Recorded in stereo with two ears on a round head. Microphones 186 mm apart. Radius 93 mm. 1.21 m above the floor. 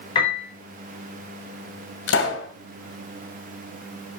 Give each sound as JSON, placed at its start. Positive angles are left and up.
{"t": 0.1, "sound": "a piano", "side_deg": 25, "distance_m": 5.0}
{"t": 2.1, "sound": "a pop", "side_deg": 70, "distance_m": 2.0}